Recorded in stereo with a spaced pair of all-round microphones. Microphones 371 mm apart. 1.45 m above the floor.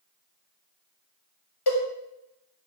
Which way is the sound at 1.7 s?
80° left.